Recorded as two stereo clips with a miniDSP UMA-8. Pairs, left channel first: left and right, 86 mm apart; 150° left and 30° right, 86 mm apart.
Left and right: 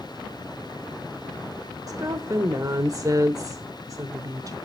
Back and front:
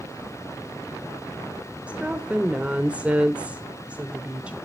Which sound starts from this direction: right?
A woman speaking, at 1.9 s.